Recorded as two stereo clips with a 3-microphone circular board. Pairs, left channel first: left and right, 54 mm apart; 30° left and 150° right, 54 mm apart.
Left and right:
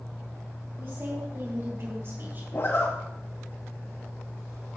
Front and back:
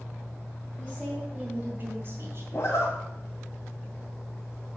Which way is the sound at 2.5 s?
60° left.